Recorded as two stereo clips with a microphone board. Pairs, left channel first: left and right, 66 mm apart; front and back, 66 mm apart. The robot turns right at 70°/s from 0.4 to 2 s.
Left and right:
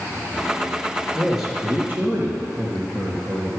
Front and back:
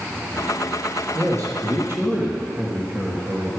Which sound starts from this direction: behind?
A man speaking, at 1.1 s.